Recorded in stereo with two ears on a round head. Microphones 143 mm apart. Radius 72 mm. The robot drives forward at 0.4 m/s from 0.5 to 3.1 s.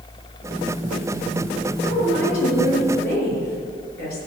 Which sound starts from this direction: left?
A woman speaking, at 1.8 s.